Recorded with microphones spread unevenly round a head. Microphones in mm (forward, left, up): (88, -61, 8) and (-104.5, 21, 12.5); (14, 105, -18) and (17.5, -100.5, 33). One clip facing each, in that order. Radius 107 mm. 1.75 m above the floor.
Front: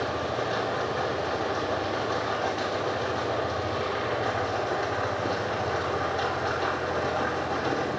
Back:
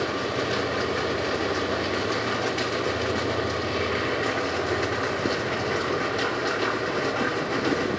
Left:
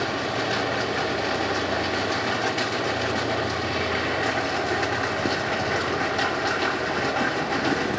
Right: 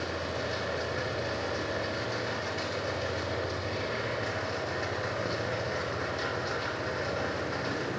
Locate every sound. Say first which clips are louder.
0.0 s a machine running: back 2 dB, left 7 dB; 100° left, 3 m